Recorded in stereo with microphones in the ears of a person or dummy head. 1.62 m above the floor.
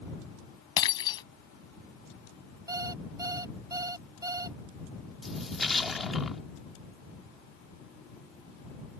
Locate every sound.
0.8 s breaking glass: 25° left (ahead or behind)
2.7 s an alarm clock: 25° right (ahead or behind)
5.2 s a splash: 5° right (ahead or behind)